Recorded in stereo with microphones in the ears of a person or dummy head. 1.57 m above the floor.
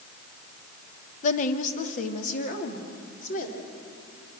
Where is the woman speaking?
45° left (ahead or behind), 1.2 m; by 3.6 s 50° left (ahead or behind), 4 m.